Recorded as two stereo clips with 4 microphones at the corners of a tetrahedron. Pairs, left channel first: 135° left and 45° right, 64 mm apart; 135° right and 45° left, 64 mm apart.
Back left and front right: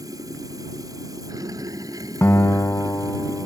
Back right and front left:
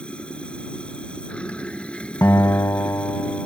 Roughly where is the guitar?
Behind.